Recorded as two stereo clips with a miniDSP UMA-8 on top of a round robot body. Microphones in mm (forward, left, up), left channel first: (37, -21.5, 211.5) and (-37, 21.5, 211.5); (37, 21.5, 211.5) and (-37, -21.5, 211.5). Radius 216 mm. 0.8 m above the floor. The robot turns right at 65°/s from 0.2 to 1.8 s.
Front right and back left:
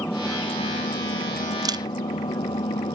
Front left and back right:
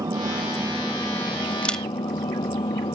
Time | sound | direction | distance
0.0 | an engine running | 100° right | ?
1.6 | a camera shutter | 105° left | ?